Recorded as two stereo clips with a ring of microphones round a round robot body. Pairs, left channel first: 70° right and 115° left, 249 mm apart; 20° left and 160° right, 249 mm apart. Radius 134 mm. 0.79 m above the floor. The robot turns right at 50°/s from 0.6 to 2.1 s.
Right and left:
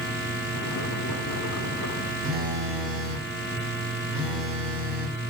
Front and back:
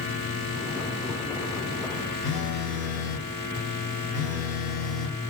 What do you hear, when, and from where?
2.2 s a phone buzzing: 70° left, 2.5 m